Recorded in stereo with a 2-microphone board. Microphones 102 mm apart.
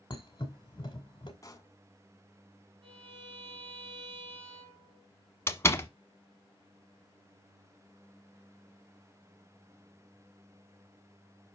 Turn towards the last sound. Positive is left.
turn(degrees=25)  # may be behind; listen again after turning